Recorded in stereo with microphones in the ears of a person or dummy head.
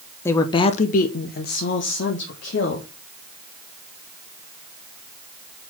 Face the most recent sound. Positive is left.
turn(degrees=45)  # may be behind; listen again after turning